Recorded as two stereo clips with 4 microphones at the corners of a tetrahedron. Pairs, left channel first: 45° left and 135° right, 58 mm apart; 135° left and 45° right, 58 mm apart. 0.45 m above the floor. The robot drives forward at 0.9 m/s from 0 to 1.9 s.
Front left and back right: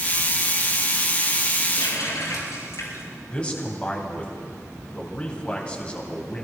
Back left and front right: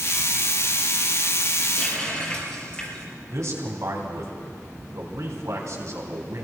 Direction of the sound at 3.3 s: 25° right.